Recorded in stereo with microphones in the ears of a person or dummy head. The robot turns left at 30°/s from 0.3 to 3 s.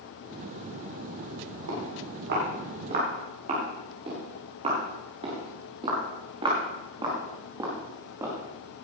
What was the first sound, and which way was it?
Footsteps, 80° right.